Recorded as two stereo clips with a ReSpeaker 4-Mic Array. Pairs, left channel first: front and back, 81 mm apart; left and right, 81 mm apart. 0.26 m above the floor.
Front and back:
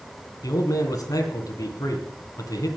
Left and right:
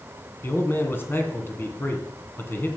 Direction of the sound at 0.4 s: 35° left.